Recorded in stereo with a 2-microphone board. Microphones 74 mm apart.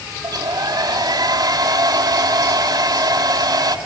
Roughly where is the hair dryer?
Right.